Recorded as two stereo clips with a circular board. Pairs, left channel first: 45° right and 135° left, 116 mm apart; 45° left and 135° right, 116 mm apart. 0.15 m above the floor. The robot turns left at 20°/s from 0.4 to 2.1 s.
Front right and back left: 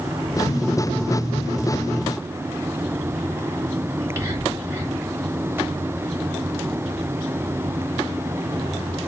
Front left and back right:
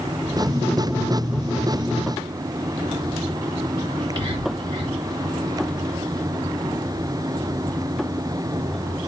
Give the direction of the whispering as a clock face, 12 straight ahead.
6 o'clock.